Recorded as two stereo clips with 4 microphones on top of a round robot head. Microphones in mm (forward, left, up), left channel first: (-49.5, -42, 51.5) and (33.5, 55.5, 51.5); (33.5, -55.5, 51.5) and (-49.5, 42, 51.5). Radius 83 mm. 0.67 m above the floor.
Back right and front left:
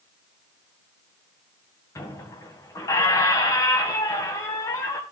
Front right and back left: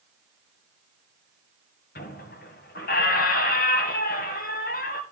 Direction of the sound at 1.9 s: 60° right.